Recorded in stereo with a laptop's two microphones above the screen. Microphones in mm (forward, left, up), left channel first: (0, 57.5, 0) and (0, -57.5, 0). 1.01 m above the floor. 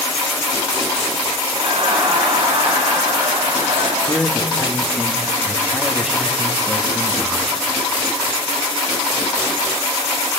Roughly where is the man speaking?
Centre.